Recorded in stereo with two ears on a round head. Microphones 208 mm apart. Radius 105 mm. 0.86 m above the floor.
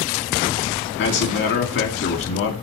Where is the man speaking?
60° left (ahead or behind), 2 m.